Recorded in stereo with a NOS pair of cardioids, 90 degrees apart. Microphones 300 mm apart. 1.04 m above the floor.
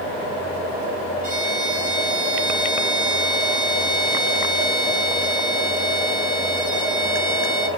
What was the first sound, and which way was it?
A violin, 30° left.